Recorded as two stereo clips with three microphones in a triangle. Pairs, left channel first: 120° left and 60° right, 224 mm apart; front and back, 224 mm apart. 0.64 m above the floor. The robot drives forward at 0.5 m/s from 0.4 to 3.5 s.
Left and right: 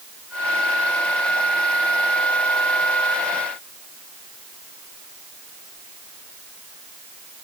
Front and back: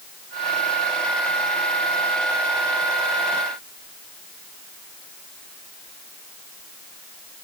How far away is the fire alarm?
No fire alarm in this recording.